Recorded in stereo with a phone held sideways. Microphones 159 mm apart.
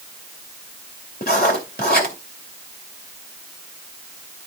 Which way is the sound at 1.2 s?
70° left (ahead or behind).